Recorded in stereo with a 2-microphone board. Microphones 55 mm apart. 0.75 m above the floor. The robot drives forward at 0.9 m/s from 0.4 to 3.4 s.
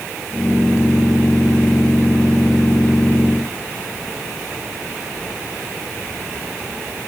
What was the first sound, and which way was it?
Only background noise.